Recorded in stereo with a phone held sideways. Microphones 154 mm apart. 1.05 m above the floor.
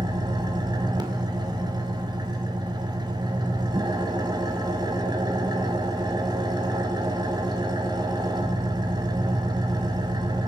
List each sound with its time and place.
0.0 s an engine running: 30° right (ahead or behind), 2.5 m